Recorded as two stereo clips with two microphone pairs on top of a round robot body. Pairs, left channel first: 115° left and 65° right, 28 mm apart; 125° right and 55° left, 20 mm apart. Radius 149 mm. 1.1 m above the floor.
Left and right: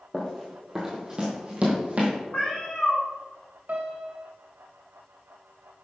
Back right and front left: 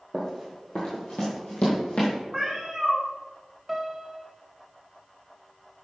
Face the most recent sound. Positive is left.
turn(degrees=-35)